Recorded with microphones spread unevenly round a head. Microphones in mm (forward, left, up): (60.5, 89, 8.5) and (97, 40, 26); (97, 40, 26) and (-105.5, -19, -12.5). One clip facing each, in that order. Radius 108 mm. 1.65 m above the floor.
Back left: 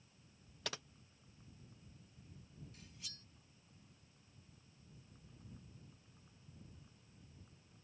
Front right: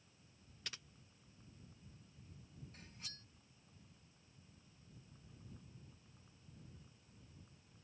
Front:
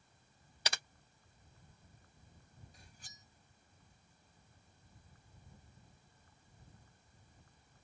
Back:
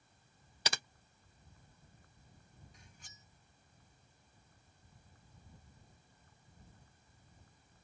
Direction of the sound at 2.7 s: 30° right.